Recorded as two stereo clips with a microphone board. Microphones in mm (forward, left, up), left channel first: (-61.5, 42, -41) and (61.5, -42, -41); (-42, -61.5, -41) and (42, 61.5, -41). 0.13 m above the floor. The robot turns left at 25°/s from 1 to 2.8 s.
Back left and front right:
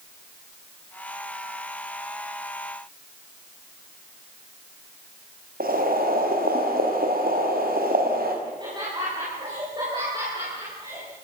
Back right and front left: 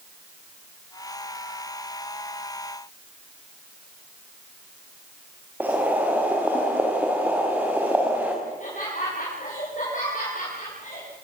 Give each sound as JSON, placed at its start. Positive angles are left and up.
{"t": 5.6, "sound": "boiling", "azimuth_deg": -25, "distance_m": 5.5}
{"t": 8.4, "sound": "laughter", "azimuth_deg": -95, "distance_m": 8.0}